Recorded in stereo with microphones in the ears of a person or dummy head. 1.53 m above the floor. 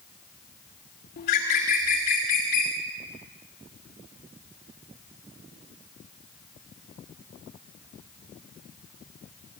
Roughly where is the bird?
Left.